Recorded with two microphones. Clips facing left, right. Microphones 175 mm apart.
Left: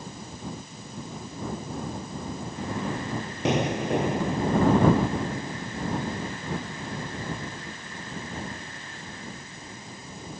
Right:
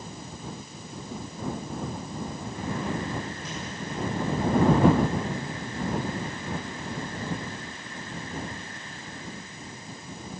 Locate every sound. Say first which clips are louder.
3.5 s an explosion: left 11 dB; 75° left (ahead or behind)